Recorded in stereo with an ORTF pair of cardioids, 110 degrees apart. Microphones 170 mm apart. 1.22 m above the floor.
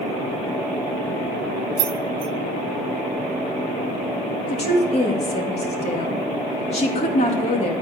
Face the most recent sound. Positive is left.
turn(degrees=40)